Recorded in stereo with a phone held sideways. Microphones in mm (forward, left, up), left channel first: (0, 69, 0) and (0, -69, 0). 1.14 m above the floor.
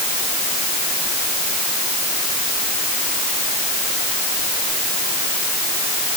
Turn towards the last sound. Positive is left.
No sound to turn to.